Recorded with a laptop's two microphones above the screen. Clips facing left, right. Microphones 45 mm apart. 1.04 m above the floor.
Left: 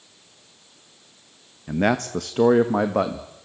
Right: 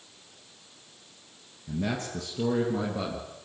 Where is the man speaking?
55° left (ahead or behind), 1.2 m.